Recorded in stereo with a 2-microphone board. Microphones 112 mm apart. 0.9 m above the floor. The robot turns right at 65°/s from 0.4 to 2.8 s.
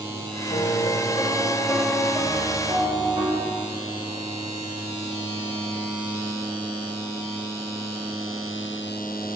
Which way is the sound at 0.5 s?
90° left.